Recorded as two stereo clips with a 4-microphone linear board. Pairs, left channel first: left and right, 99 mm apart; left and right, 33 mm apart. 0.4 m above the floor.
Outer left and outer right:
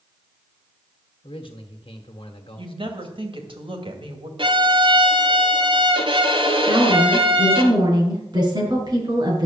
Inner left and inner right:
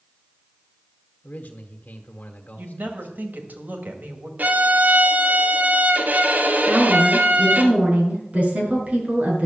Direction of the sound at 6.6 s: 45° right (ahead or behind).